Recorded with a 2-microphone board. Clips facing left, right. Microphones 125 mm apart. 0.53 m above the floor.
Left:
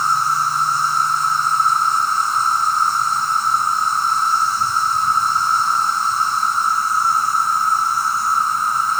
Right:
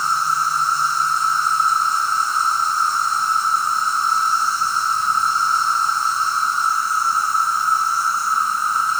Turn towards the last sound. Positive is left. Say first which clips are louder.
# left 2 dB
turn(degrees=55)  # may be behind; listen again after turning